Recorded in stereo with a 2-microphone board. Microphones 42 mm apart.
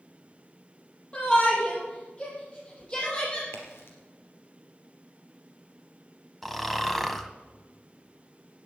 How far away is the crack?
About 4 m.